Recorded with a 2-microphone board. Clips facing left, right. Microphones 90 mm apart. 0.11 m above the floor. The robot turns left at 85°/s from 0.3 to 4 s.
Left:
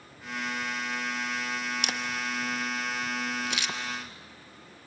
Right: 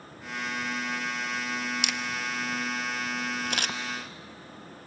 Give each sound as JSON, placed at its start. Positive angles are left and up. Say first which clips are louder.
{"t": 1.8, "sound": "a camera shutter", "louder": "even", "side_deg": 50, "distance_m": 1.3}